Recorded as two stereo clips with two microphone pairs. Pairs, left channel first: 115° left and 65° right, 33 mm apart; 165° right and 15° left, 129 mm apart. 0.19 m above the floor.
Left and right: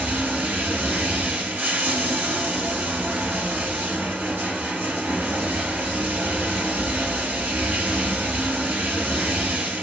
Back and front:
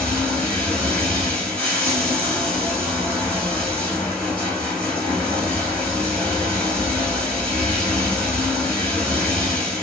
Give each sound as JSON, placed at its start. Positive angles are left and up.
{"t": 0.0, "sound": "running water", "azimuth_deg": -80, "distance_m": 2.0}